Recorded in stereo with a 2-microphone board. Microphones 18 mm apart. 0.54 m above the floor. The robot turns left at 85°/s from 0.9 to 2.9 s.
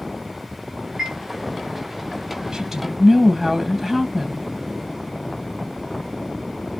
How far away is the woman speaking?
About 3.5 m.